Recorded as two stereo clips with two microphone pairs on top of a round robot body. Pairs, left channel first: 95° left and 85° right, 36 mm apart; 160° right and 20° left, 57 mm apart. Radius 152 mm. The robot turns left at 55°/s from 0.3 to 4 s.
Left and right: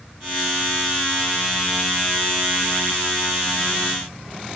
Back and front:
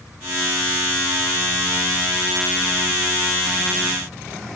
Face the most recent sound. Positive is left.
No sound to turn to.